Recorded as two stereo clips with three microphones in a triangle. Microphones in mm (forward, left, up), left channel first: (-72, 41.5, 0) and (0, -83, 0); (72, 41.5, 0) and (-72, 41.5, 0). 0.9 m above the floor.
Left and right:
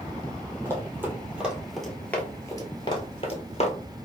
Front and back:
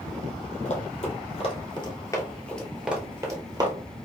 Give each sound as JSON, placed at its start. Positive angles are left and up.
{"t": 0.7, "sound": "running footsteps", "azimuth_deg": 10, "distance_m": 1.6}